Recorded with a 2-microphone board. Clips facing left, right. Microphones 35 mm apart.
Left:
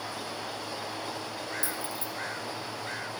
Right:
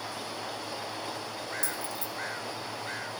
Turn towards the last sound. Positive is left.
turn(degrees=20)  # may be behind; listen again after turning